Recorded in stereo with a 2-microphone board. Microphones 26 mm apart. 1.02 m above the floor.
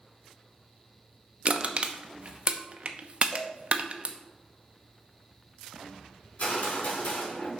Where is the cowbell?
40° left (ahead or behind), 1.4 m.